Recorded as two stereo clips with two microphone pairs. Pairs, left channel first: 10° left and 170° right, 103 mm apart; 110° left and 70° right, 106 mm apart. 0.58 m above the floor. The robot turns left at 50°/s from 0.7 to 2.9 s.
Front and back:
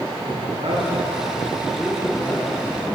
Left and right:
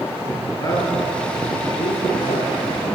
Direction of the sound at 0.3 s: 160° left.